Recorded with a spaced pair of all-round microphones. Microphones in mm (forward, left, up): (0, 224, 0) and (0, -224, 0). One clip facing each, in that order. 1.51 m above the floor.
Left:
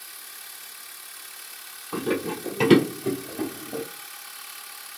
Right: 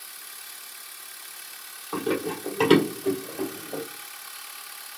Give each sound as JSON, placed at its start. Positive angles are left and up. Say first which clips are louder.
{"t": 1.9, "sound": "running footsteps", "louder": "even", "side_deg": 40, "distance_m": 2.0}